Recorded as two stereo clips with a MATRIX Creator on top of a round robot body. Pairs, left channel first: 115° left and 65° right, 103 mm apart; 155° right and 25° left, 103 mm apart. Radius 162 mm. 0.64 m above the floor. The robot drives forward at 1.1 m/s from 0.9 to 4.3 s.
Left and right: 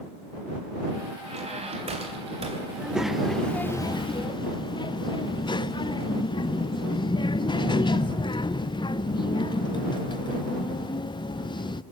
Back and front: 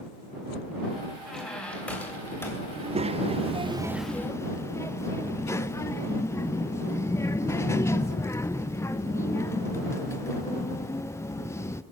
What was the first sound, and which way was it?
A squeak, 70° right.